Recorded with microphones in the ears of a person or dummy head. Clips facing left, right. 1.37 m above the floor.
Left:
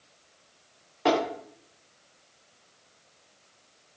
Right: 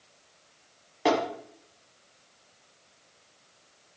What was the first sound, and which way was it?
Tapping, 15° right (ahead or behind).